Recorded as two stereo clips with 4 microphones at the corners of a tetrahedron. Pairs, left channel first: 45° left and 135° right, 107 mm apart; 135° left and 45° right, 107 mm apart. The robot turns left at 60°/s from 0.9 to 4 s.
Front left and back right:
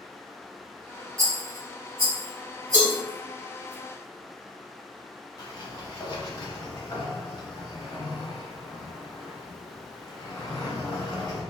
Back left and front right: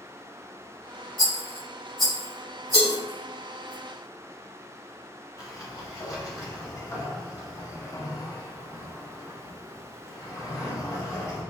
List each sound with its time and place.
1.2 s a rattle: 85° right, 1.6 m; by 3.7 s 120° left, 1.6 m
2.7 s a cowbell: 155° left, 1.3 m; by 2.9 s 140° left, 1.3 m
5.4 s a sliding door: 85° left, 1.1 m